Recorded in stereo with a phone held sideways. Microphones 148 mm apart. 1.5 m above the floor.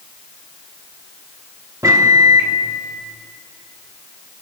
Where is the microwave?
20° right (ahead or behind), 1.2 m.